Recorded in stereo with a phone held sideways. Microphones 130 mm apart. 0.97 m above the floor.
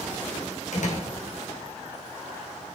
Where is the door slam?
70° left (ahead or behind), 2.5 m.